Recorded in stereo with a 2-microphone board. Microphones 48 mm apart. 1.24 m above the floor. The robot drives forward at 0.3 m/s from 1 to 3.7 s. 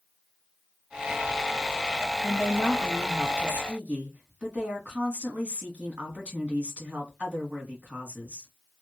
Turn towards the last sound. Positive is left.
turn(degrees=-30)  # may be behind; listen again after turning